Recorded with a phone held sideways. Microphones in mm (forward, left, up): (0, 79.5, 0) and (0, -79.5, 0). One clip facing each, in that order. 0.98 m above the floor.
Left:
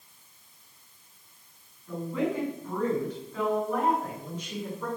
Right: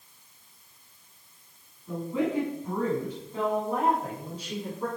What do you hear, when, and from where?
1.9 s a woman speaking: 20° right (ahead or behind), 8.5 m; by 4.9 s 35° right (ahead or behind), 8.5 m